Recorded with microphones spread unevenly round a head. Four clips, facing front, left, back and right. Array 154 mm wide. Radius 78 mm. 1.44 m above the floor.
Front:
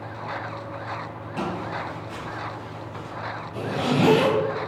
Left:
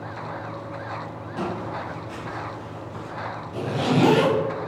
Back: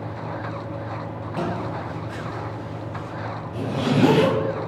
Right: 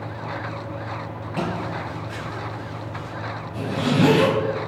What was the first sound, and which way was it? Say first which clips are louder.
Footsteps: right 2 dB, back 1 dB; 105° right.